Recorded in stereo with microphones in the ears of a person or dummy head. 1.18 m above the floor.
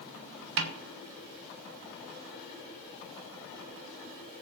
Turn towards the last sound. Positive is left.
turn(degrees=-65)  # may be behind; listen again after turning